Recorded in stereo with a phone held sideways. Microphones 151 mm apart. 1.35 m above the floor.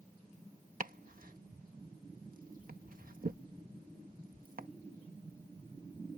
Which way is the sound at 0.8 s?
65° right (ahead or behind).